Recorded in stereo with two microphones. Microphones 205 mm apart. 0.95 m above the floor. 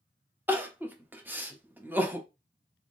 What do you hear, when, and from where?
0.5 s crying: 10° right (ahead or behind), 0.6 m